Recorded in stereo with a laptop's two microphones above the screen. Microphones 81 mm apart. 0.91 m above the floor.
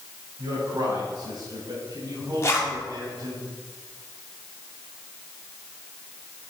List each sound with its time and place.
0.4 s a man speaking: 80° right, 5.5 m; by 3.4 s 60° right (ahead or behind), 6.5 m
2.4 s a zipper: 35° left (ahead or behind), 1.9 m